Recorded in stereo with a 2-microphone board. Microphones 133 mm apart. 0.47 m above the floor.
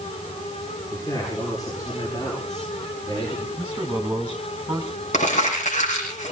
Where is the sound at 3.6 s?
15° right (ahead or behind), 2 m.